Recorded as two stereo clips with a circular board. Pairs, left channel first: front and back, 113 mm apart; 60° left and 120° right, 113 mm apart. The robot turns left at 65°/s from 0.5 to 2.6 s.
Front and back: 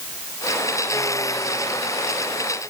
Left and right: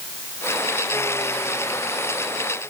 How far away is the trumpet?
I don't hear a trumpet.